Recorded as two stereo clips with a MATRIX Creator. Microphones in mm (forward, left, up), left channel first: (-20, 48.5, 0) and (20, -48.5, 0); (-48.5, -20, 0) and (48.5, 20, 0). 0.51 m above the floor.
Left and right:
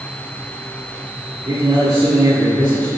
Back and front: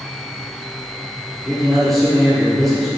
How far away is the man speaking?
About 1.6 m.